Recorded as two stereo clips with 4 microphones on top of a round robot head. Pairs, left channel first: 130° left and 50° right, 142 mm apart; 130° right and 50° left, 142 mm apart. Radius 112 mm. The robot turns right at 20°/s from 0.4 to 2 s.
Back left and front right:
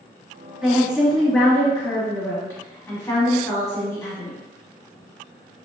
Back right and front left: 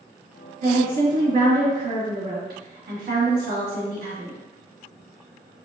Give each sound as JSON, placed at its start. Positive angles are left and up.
{"t": 0.6, "sound": "a woman speaking", "azimuth_deg": 30, "distance_m": 1.5}